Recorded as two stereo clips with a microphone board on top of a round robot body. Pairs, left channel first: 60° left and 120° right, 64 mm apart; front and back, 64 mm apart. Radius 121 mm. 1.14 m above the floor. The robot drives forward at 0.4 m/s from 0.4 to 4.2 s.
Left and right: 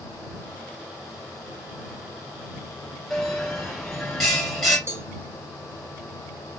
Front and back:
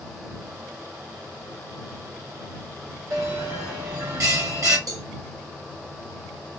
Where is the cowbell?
165° right, 1.4 m.